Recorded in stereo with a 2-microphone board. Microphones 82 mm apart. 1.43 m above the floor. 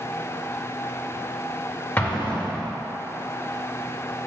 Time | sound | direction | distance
2.0 | an explosion | 20° left (ahead or behind) | 2 m